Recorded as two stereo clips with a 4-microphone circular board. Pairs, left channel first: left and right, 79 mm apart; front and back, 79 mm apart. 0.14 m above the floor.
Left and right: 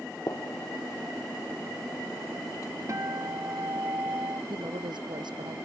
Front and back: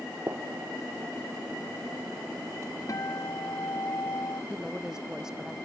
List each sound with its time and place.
0.3 s a gunshot: 130° left
2.9 s a guitar: 40° right
4.5 s a woman speaking: 100° right